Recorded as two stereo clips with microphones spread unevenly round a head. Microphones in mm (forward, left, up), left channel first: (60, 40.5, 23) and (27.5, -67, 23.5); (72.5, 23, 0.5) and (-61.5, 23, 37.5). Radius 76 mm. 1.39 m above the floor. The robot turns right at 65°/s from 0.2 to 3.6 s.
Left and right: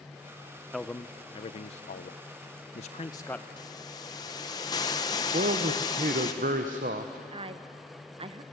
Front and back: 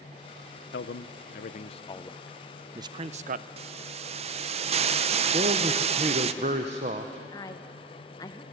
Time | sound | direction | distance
0.7 | a man speaking | 15° right | 0.8 m
3.6 | a hiss | 140° left | 0.7 m
5.3 | a man speaking | 130° right | 0.8 m
7.3 | a woman speaking | 70° right | 1.1 m